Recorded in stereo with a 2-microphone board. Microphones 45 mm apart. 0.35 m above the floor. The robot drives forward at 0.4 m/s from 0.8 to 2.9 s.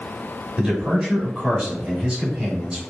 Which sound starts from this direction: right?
A man speaking, at 0.6 s.